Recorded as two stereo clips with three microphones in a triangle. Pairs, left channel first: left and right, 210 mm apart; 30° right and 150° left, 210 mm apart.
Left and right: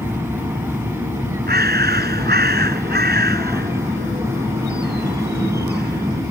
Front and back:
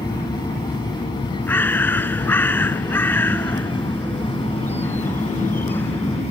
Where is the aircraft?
35° right; by 6.3 s 25° right.